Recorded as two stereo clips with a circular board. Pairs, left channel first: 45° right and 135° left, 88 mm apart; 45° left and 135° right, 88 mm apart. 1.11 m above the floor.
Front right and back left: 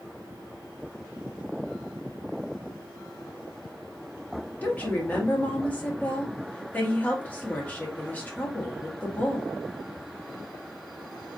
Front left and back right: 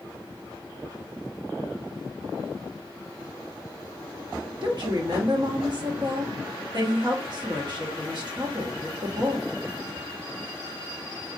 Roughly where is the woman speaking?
Behind right.